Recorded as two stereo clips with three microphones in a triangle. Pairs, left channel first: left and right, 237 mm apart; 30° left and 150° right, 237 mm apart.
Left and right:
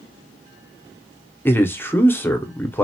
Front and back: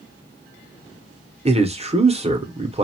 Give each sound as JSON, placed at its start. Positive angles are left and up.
{"t": 1.4, "sound": "a man speaking", "azimuth_deg": 165, "distance_m": 0.6}